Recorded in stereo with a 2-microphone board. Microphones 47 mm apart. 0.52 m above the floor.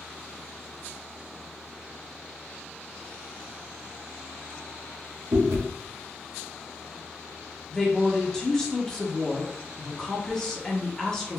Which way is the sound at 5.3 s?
65° right (ahead or behind).